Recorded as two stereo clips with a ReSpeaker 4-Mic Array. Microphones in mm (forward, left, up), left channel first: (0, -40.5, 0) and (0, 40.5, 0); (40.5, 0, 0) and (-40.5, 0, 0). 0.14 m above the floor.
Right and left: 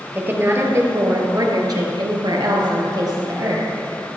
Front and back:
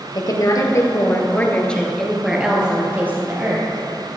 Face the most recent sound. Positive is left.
turn(degrees=125)